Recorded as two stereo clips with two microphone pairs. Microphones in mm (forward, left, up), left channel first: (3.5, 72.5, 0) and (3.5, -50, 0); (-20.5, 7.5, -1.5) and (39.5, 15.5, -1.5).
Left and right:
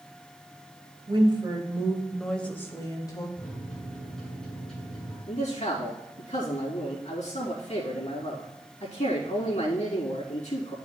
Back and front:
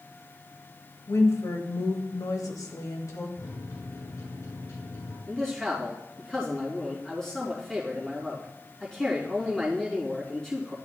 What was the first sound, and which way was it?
A woman speaking, 130° right.